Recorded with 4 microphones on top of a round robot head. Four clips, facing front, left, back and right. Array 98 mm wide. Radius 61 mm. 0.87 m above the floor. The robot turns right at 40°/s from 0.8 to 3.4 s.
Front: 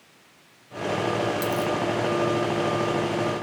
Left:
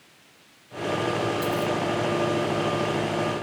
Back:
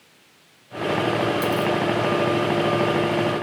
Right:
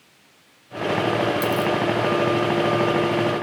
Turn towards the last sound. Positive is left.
turn(degrees=10)